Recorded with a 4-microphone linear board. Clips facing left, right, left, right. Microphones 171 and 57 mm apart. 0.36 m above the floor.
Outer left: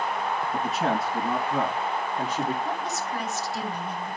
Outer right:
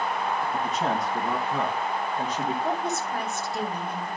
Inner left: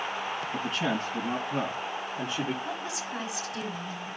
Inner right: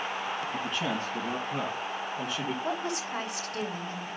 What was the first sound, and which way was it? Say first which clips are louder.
A man speaking: outer left 1 dB, inner left 4 dB; 5° left (ahead or behind).